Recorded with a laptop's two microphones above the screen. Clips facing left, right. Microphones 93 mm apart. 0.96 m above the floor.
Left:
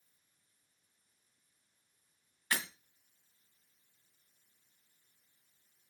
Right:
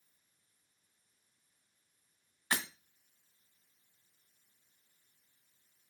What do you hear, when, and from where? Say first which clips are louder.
2.5 s breaking glass: right 1 dB; 25° right (ahead or behind), 1.7 m